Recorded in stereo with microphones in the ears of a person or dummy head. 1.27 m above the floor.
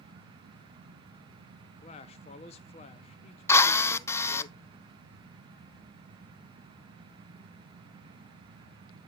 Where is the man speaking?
30° left (ahead or behind), 0.6 m.